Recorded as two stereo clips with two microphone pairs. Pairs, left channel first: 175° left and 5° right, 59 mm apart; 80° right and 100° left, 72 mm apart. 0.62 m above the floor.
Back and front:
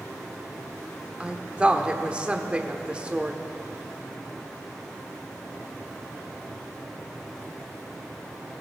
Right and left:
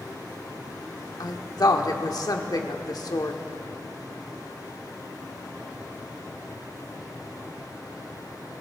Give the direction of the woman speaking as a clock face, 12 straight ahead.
2 o'clock.